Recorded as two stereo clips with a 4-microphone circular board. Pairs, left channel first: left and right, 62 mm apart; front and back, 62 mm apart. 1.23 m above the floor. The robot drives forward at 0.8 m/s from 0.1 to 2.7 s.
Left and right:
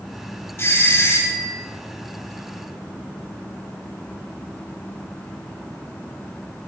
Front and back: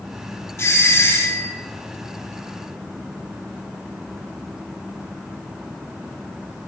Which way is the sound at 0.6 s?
35° left.